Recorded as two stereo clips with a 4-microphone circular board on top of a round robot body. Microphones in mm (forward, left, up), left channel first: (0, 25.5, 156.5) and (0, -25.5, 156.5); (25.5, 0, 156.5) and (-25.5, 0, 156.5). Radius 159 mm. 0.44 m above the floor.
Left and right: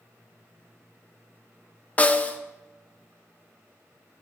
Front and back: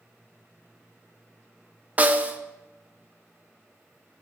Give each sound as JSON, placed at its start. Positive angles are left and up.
{"t": 2.0, "sound": "a snare drum", "azimuth_deg": 135, "distance_m": 1.0}